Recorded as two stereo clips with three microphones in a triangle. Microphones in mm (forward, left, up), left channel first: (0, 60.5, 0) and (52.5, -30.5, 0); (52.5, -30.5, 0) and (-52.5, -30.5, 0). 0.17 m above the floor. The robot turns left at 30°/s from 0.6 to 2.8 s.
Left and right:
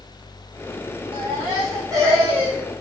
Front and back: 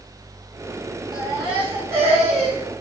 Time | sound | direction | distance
1.1 | a baby crying | 90° right | 9.5 m